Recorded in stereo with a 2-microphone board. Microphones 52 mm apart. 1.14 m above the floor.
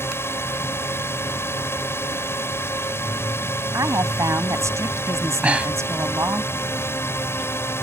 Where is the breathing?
25° right (ahead or behind).